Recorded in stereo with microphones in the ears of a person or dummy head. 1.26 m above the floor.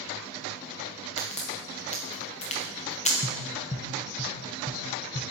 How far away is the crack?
About 0.6 m.